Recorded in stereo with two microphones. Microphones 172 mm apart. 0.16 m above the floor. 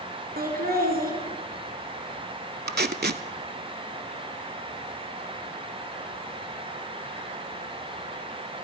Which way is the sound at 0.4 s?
60° right (ahead or behind).